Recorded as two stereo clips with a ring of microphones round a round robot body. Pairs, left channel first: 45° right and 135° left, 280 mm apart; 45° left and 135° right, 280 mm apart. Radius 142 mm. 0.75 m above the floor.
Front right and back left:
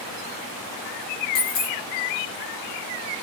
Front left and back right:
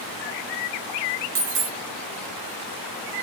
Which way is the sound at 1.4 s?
95° right.